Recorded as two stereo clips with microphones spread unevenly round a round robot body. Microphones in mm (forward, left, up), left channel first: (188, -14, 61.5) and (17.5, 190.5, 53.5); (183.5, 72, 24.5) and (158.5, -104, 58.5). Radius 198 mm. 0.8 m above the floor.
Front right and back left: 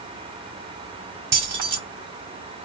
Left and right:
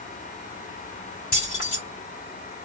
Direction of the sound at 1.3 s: 140° left.